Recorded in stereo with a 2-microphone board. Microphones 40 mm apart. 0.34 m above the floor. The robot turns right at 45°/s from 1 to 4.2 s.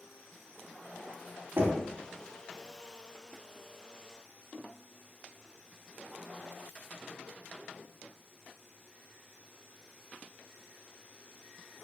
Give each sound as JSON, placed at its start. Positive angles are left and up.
{"t": 1.6, "sound": "knocking", "side_deg": -65, "distance_m": 1.5}